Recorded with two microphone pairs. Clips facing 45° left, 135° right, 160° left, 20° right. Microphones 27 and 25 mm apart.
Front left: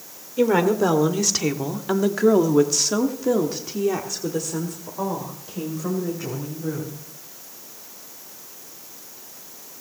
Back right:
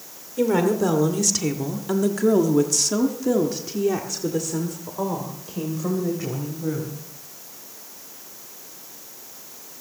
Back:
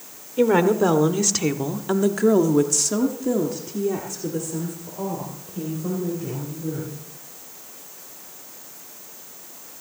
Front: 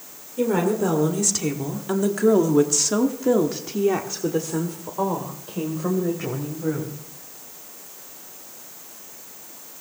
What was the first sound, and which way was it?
A woman speaking, 110° left.